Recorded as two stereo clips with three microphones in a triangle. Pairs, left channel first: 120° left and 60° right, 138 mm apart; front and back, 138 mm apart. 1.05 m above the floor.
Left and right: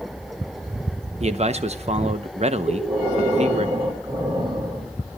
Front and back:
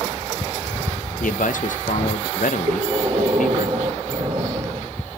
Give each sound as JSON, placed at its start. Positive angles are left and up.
{"t": 1.2, "sound": "a man speaking", "azimuth_deg": -20, "distance_m": 0.8}
{"t": 2.7, "sound": "breathing", "azimuth_deg": -125, "distance_m": 2.5}